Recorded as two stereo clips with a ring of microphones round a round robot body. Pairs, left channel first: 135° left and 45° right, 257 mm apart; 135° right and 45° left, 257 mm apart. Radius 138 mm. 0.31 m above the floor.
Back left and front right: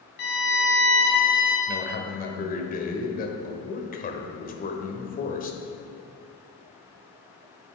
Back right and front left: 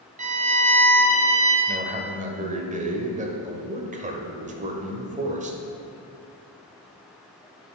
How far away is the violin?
About 1.7 m.